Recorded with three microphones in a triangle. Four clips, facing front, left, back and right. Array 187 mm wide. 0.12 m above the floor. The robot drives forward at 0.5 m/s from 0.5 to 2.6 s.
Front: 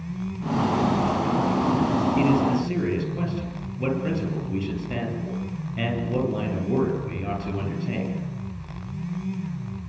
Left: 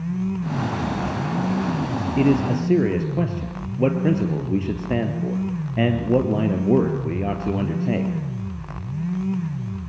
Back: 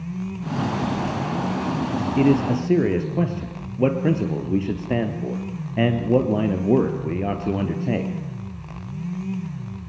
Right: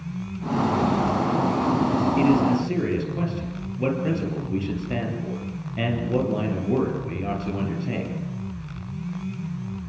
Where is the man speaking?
150° left, 3 m.